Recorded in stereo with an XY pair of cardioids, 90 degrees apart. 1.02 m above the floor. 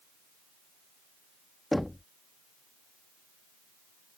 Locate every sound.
1.7 s knocking: 10° left